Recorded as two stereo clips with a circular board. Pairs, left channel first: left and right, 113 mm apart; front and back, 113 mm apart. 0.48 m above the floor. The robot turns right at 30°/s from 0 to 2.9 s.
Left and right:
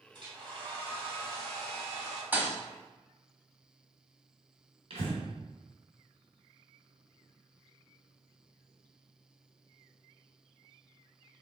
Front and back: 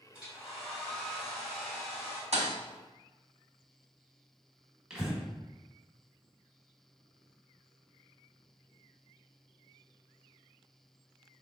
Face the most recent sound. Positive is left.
turn(degrees=-100)